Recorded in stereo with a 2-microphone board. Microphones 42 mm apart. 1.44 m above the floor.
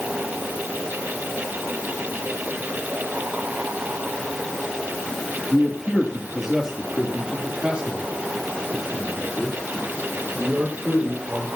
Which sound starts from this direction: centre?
A man speaking, at 5.5 s.